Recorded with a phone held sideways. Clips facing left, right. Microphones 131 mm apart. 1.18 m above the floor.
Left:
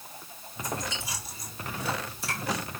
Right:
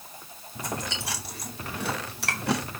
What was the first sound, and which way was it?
Chewing, 75° right (ahead or behind).